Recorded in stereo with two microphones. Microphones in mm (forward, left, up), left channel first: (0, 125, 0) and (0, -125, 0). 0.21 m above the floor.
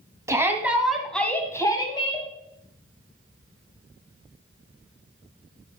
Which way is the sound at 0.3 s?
10° right (ahead or behind).